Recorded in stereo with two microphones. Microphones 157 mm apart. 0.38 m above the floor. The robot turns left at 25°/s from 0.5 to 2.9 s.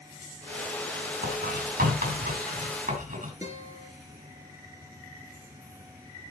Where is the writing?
70° right (ahead or behind), 4.5 m; by 3.3 s 55° right (ahead or behind), 4.5 m.